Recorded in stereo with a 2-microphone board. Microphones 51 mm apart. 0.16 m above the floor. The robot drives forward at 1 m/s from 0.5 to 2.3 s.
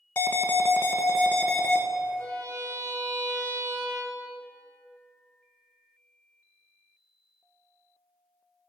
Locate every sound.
0.2 s an alarm: 40° left (ahead or behind), 1.0 m; by 1.8 s 25° left (ahead or behind), 1.6 m
2.2 s a violin: 75° right (ahead or behind), 4 m